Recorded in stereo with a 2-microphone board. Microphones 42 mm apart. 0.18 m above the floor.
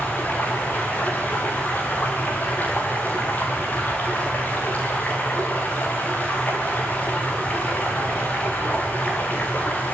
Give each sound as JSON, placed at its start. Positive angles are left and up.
{"t": 0.0, "sound": "running water", "side_deg": 45, "distance_m": 6.5}